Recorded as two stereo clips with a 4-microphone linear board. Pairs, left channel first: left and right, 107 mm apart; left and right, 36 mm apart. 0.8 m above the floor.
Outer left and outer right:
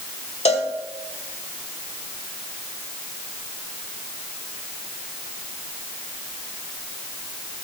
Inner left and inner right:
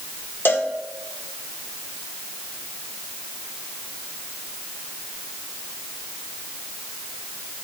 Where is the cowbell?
85° left, 1.3 m.